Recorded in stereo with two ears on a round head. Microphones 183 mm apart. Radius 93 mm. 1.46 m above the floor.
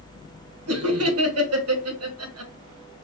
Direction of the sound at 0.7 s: 80° right.